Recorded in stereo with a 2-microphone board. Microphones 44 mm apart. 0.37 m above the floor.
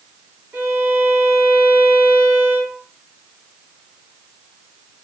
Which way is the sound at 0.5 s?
50° right (ahead or behind).